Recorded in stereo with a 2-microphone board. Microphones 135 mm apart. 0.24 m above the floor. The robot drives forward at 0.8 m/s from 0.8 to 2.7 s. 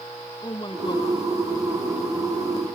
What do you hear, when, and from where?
0.4 s a woman speaking: 30° left (ahead or behind)